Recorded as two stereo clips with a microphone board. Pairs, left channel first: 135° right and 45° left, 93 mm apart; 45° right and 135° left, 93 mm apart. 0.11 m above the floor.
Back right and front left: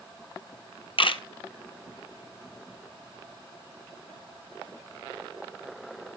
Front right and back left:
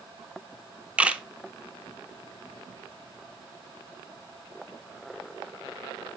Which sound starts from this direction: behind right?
A camera shutter, at 1.0 s.